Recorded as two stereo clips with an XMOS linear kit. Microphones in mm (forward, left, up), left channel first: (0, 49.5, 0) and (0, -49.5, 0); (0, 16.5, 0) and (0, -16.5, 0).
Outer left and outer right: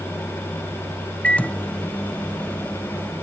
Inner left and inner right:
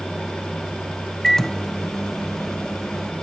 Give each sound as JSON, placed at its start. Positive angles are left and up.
{"t": 1.2, "sound": "a microwave", "side_deg": 15, "distance_m": 0.8}